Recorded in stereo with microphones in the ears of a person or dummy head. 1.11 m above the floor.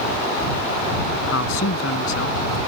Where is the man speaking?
85° left; by 2.6 s 80° left.